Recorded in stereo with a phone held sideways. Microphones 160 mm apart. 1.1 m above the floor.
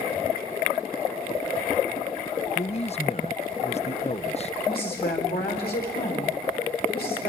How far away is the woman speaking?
About 4.5 m.